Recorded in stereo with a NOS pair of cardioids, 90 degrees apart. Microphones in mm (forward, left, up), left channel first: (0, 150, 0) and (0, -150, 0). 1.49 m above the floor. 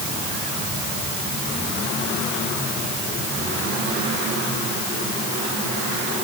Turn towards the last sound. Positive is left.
No sound to turn to.